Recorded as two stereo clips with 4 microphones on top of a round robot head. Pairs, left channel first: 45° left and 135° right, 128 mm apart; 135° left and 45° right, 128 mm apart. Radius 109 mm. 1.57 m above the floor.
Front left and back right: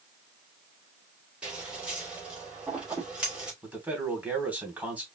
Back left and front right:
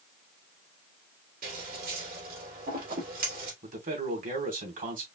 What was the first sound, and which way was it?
Scissors, 50° right.